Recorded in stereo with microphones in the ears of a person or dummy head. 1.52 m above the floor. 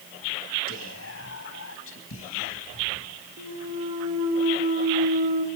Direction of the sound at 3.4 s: 30° right (ahead or behind).